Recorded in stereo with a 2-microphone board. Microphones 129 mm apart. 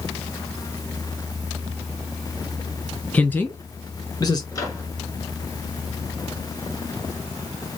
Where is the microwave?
30° left (ahead or behind), 1.5 m.